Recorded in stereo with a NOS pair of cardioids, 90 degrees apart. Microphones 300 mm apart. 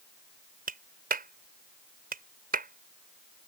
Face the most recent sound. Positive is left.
turn(degrees=-30)